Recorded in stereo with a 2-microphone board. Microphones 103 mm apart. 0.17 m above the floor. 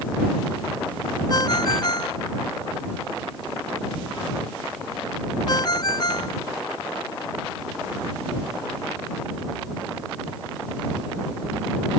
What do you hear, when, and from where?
1.3 s a ringtone: 45° left (ahead or behind)